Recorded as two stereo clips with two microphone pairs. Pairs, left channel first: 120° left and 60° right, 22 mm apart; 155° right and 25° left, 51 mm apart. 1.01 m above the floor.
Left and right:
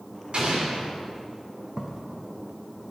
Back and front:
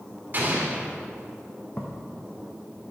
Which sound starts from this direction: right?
Footsteps, at 1.8 s.